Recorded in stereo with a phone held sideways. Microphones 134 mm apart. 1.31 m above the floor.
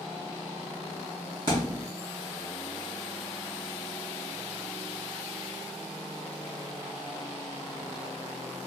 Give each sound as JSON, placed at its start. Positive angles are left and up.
{"t": 1.5, "sound": "a thud", "side_deg": -35, "distance_m": 3.0}